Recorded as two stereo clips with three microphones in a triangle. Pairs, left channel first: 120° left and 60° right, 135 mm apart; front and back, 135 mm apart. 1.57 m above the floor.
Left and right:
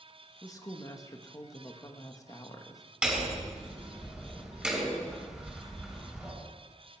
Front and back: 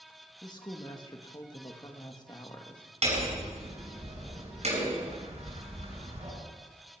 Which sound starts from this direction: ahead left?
A woman speaking, at 0.4 s.